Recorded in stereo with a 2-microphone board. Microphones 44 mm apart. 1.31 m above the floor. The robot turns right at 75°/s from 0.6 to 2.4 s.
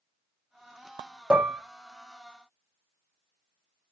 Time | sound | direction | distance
1.3 | dishes clattering | 20° right (ahead or behind) | 0.5 m